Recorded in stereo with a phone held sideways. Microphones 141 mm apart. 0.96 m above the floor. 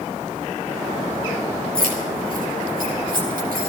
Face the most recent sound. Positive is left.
turn(degrees=-85)